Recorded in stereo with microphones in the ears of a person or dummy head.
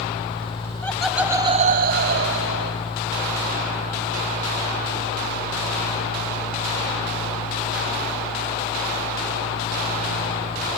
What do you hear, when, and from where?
0.8 s laughter: 10° left (ahead or behind), 0.7 m; by 2.9 s 60° right (ahead or behind), 0.9 m